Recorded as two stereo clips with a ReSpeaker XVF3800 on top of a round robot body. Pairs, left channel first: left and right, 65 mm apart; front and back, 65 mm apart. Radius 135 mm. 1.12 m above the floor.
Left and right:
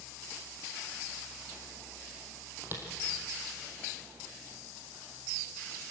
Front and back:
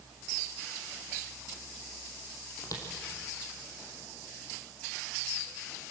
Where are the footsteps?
35° right, 3 m.